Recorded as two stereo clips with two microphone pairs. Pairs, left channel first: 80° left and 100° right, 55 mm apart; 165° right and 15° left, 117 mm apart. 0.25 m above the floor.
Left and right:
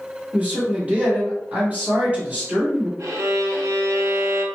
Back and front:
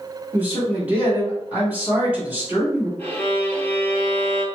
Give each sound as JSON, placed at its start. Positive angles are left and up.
{"t": 0.3, "sound": "a man speaking", "azimuth_deg": -50, "distance_m": 1.7}
{"t": 3.0, "sound": "a violin", "azimuth_deg": -90, "distance_m": 0.8}